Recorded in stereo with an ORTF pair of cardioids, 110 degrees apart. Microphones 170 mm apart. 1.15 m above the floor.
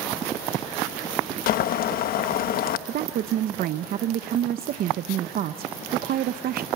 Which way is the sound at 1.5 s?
60° left.